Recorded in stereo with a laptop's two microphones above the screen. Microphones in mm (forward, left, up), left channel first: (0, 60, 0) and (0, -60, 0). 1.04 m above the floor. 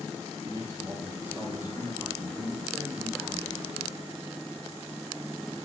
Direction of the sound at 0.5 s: 30° right (ahead or behind).